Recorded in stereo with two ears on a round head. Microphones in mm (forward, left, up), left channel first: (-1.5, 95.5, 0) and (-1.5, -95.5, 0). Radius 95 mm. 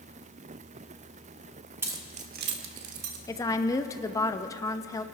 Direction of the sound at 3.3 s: 15° left (ahead or behind).